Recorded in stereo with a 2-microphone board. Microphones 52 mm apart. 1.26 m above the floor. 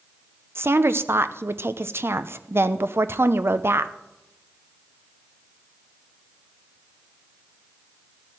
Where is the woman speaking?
55° right (ahead or behind), 0.6 m.